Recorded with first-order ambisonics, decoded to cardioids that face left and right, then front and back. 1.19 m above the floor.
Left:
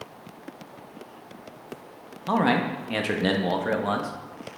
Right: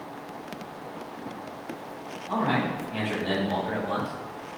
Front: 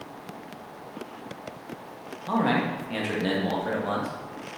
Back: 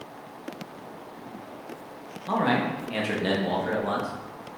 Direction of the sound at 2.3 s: 95° left.